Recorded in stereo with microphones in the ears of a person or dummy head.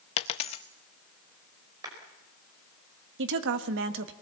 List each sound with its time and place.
0.2 s a dropped coin: 30° left (ahead or behind), 0.6 m
1.8 s a clap: 20° right (ahead or behind), 5 m
3.2 s a woman speaking: 70° right (ahead or behind), 1.3 m